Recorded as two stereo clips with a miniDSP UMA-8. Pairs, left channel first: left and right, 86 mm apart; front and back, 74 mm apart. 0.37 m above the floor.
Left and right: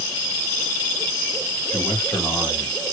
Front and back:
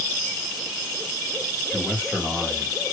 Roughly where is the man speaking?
Left.